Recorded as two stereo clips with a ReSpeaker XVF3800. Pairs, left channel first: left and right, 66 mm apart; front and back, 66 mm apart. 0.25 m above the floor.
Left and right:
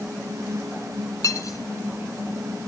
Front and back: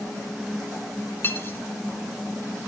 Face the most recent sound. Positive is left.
turn(degrees=55)